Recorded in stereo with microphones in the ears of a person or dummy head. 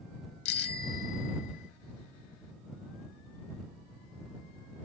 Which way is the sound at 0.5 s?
70° left (ahead or behind).